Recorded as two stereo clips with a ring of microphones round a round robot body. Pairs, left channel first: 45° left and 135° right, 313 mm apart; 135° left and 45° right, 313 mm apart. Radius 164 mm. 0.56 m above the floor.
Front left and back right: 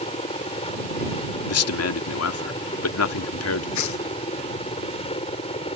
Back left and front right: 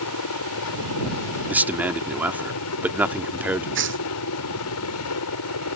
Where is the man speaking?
40° left.